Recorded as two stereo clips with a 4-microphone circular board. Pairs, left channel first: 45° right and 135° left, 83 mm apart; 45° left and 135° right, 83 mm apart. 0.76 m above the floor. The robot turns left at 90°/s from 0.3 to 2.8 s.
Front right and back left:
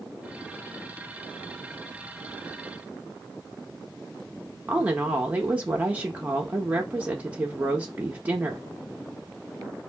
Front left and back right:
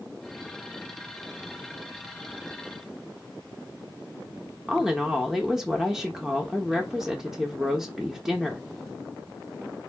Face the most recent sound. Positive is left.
turn(degrees=150)